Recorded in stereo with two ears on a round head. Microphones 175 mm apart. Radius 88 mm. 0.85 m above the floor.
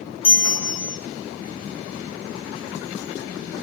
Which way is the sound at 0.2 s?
30° left (ahead or behind).